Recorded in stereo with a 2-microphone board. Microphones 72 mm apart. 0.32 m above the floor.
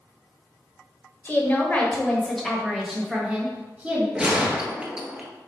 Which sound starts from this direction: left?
A woman speaking, at 1.2 s.